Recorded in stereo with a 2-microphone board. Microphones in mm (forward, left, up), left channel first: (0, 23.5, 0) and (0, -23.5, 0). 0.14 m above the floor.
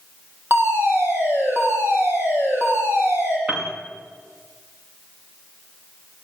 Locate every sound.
0.5 s a fire alarm: 55° right (ahead or behind), 8 m
3.5 s a piano: 25° right (ahead or behind), 4.5 m